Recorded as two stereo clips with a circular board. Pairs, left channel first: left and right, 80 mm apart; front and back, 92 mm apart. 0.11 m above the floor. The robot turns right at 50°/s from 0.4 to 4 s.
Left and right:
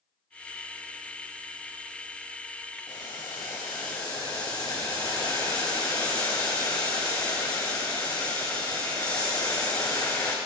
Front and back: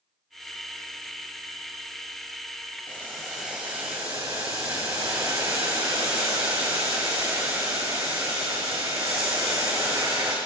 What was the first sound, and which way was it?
Boiling, 70° left.